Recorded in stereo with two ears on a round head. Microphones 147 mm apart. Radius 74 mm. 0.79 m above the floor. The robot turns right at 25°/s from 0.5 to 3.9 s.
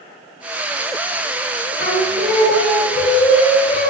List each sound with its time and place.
1.8 s singing: 95° left, 0.6 m; by 3.9 s 150° left, 0.6 m